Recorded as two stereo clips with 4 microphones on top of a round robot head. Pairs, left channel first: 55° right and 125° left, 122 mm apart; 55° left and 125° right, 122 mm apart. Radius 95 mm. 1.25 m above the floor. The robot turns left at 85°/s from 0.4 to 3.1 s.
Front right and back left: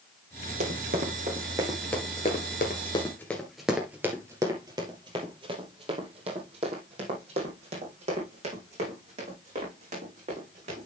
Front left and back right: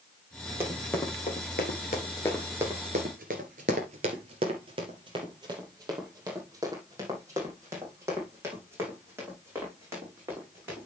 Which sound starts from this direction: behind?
Running footsteps, at 0.6 s.